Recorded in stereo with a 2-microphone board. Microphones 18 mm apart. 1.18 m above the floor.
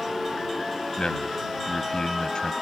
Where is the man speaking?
50° left (ahead or behind).